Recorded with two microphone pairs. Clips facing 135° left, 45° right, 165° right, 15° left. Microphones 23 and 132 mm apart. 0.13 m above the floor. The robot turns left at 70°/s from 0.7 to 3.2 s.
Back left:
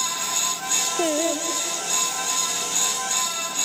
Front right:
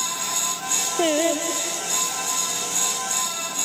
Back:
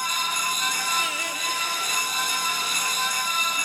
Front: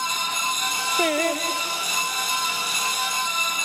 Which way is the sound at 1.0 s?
5° left.